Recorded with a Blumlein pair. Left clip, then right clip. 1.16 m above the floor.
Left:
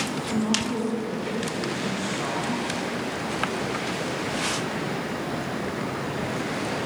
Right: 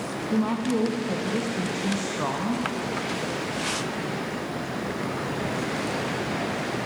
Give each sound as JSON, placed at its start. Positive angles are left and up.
{"t": 0.3, "sound": "a woman speaking", "azimuth_deg": -70, "distance_m": 0.8}